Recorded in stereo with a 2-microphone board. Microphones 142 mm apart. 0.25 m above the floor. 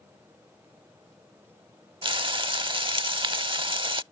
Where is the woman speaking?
I don't hear a woman speaking.